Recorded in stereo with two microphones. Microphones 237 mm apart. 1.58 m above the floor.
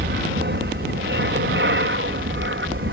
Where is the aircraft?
45° right (ahead or behind); by 2.9 s 55° right (ahead or behind).